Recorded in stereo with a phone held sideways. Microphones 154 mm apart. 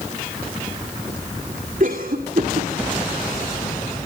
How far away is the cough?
About 2.5 m.